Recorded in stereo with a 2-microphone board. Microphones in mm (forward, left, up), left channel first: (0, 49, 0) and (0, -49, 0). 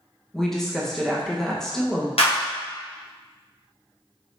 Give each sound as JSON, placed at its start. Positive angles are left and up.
{"t": 0.3, "sound": "a woman speaking", "side_deg": 5, "distance_m": 1.0}
{"t": 2.2, "sound": "a clap", "side_deg": 70, "distance_m": 1.1}